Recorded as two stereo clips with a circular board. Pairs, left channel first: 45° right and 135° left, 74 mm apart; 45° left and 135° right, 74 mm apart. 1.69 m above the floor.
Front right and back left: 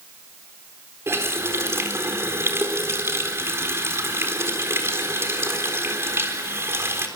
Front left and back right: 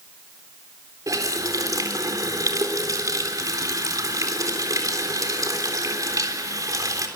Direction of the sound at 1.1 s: 175° right.